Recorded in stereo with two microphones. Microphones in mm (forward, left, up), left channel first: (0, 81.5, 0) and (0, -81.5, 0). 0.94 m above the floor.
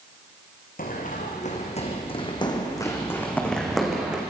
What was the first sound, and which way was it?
Running footsteps, 60° left (ahead or behind).